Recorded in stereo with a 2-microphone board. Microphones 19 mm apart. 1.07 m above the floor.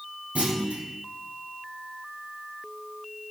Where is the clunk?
75° right (ahead or behind), 4.5 m.